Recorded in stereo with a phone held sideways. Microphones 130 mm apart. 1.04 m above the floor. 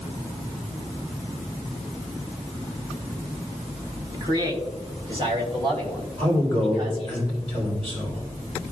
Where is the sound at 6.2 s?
50° right (ahead or behind), 3.5 m.